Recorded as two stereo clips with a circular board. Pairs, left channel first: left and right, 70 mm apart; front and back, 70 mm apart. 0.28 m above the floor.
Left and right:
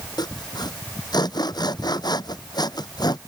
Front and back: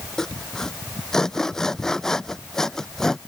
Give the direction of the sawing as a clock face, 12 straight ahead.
9 o'clock.